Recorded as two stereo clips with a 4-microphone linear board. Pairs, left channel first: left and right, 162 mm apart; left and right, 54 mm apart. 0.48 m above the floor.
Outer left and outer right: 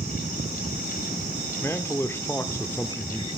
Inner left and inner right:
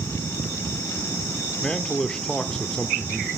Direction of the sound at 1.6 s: 15° left (ahead or behind).